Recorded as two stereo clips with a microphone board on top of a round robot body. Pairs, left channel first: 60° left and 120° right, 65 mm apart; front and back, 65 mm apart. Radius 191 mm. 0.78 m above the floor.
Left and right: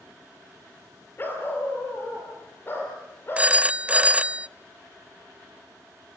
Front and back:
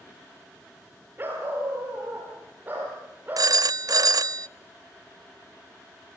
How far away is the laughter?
No laughter in this recording.